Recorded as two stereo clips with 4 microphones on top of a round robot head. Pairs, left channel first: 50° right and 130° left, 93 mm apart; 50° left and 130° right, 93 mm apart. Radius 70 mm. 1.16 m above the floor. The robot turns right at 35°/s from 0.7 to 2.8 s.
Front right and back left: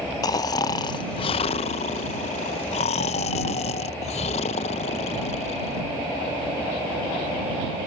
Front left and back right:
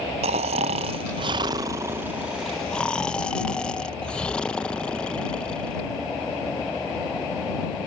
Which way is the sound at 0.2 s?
105° right.